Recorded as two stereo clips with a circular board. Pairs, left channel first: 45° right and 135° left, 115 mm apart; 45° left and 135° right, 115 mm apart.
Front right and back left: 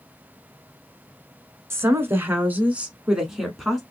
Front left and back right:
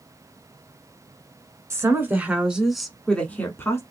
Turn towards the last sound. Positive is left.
turn(degrees=40)